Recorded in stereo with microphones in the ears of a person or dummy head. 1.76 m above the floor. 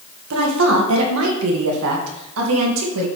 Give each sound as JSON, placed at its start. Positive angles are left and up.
{"t": 0.3, "sound": "a woman speaking", "side_deg": -65, "distance_m": 1.8}